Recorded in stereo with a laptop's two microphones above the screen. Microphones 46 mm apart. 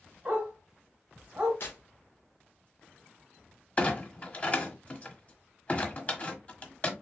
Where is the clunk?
35° left (ahead or behind), 1.3 m.